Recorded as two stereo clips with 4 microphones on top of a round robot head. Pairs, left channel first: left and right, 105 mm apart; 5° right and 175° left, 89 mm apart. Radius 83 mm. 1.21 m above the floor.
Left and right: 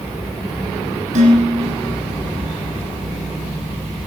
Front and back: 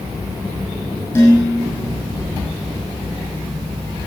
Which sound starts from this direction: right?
Dishes clattering, at 1.1 s.